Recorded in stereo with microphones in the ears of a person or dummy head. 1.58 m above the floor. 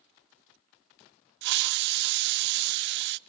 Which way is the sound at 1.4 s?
60° right (ahead or behind).